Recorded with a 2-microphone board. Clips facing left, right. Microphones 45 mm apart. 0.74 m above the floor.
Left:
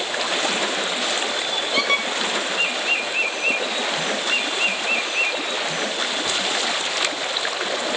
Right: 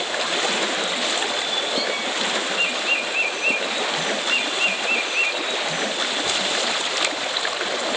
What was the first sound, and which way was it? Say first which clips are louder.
A squeak: left 4 dB; 75° left (ahead or behind).